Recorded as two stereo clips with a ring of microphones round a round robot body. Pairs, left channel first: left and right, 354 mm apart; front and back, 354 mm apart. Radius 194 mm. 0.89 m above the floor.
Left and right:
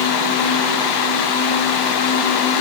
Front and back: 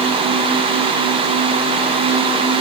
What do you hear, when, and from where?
Only background noise.